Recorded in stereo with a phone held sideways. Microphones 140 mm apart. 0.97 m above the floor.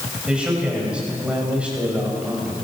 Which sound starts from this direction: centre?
A man speaking, at 0.3 s.